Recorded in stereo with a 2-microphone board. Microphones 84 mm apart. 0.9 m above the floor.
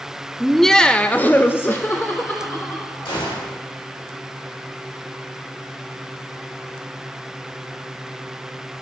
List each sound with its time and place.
0.4 s laughter: centre (ahead or behind), 0.8 m; by 3.2 s 25° left (ahead or behind), 1.8 m
3.0 s a gunshot: 80° left, 2.5 m